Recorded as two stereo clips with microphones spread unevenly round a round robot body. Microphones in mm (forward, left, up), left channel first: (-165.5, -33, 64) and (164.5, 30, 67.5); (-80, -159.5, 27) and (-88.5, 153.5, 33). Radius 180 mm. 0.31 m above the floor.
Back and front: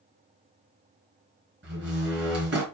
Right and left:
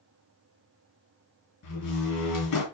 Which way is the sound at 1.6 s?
45° right.